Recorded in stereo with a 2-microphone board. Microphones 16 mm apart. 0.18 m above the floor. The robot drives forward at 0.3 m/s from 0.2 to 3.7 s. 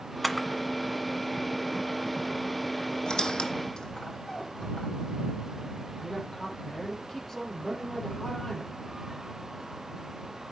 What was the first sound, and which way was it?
A camera shutter, centre (ahead or behind).